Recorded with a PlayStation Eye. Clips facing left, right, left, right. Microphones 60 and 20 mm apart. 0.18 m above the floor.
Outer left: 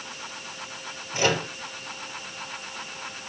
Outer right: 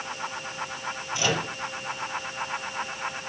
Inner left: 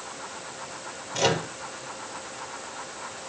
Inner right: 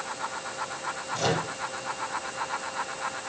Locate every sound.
1.1 s a microwave: 40° left (ahead or behind), 3.5 m